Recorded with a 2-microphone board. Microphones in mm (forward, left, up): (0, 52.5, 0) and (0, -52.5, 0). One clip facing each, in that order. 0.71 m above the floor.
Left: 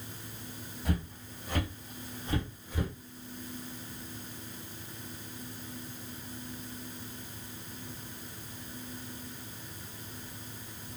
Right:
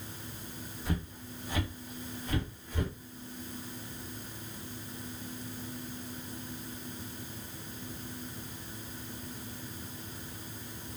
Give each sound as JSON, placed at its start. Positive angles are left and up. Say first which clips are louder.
{"t": 0.8, "sound": "footsteps", "louder": "left 2 dB", "side_deg": 65, "distance_m": 1.5}